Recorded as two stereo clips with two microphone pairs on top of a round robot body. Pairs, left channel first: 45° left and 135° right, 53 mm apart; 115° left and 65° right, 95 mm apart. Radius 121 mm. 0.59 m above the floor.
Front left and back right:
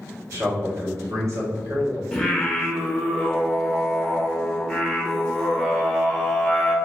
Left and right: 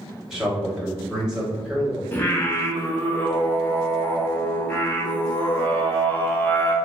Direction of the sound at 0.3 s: 150° right.